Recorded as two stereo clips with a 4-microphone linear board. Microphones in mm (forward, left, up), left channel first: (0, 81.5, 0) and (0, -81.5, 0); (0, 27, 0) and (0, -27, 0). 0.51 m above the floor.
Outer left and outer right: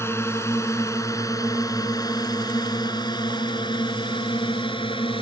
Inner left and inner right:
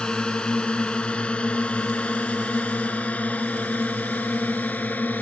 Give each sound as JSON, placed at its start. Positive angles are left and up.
{"t": 0.0, "sound": "a drone", "side_deg": 15}